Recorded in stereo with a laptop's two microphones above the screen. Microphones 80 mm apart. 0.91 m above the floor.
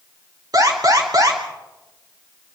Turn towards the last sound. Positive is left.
turn(degrees=-55)  # may be behind; listen again after turning